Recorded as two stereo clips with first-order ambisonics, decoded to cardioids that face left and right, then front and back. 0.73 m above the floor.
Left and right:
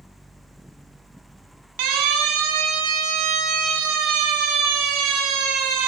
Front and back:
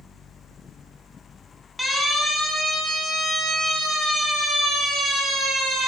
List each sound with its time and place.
1.8 s a siren: 95° right, 7 m; by 5.9 s 110° right, 8 m